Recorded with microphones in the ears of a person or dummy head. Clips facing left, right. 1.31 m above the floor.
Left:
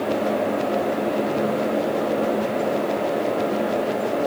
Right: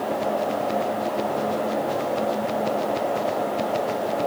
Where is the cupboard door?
I don't hear a cupboard door.